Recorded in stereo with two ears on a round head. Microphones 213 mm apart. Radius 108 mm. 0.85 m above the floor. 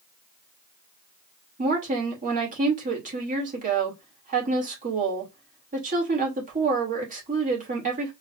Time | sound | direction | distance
1.6 | a woman speaking | 35° right (ahead or behind) | 2 m